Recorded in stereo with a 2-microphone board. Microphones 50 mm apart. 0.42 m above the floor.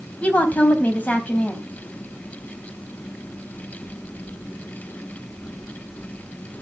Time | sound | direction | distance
0.2 | a woman speaking | 25° left (ahead or behind) | 3.5 m